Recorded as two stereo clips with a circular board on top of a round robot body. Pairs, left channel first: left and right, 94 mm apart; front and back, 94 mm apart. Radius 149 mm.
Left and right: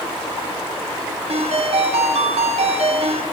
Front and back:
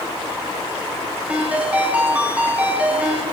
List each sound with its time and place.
1.3 s a ringtone: 105° right, 2 m